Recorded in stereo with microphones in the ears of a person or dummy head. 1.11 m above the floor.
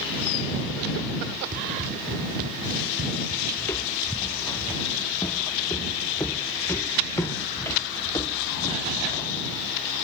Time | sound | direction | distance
1.5 | running footsteps | 50° right (ahead or behind) | ?
3.6 | footsteps | 15° left (ahead or behind) | ?